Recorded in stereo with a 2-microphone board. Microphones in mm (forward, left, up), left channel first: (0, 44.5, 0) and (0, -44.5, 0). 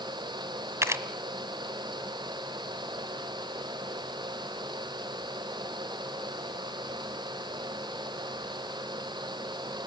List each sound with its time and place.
0.8 s a camera shutter: 30° right (ahead or behind), 1.4 m